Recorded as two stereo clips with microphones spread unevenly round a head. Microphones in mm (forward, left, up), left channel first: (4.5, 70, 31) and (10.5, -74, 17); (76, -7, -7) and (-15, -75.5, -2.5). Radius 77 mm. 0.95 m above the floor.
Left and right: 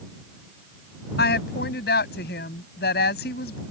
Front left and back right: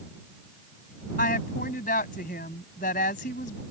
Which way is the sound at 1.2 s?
75° left.